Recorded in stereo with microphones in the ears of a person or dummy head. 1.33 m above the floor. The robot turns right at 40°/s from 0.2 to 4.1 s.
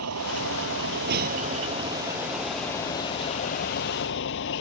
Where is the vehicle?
90° right; by 4.6 s 65° left.